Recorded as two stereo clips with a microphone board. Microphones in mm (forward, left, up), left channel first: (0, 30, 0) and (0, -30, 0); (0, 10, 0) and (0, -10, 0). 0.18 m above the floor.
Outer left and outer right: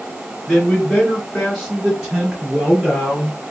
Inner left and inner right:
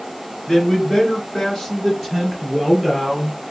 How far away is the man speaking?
About 1.4 m.